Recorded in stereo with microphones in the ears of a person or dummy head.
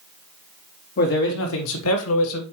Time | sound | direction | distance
1.0 | a man speaking | 55° left (ahead or behind) | 1.4 m